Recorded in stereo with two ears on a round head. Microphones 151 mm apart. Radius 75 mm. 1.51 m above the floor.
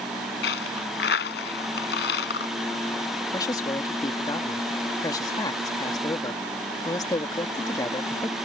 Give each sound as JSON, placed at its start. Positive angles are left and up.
{"t": 0.4, "sound": "a dropped coin", "side_deg": 70}
{"t": 3.3, "sound": "a man speaking", "side_deg": 25}